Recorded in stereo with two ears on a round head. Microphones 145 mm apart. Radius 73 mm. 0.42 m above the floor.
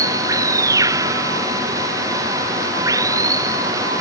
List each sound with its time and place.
0.0 s running water: 20° right (ahead or behind)